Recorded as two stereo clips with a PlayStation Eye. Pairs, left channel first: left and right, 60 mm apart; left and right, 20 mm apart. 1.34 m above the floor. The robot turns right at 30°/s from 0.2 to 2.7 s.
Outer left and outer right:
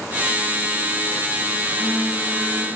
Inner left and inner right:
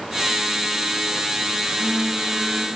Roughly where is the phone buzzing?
Ahead left.